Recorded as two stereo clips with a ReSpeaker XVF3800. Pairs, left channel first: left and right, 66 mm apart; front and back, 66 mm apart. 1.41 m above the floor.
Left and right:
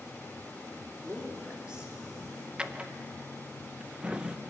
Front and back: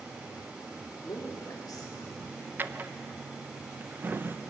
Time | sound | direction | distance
1.0 | a man speaking | 25° right | 2.5 m
2.6 | a drawer | 150° right | 0.5 m